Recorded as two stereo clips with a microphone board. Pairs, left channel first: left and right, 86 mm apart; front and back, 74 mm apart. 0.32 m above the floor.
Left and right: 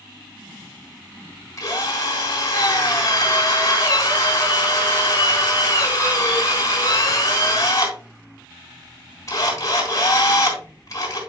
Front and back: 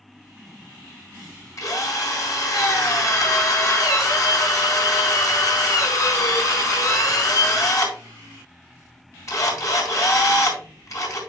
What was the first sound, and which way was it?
A drill, 40° left.